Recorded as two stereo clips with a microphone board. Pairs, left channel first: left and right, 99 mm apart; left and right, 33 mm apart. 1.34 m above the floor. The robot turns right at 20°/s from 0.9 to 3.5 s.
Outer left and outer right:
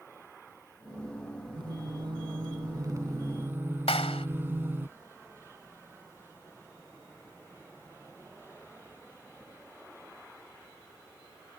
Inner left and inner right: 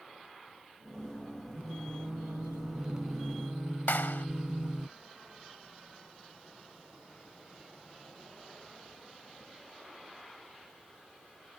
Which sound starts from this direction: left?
A clap, at 3.9 s.